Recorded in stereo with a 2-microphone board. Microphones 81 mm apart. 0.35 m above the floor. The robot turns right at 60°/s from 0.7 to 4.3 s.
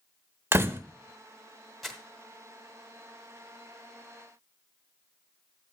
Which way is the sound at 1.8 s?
Centre (ahead or behind).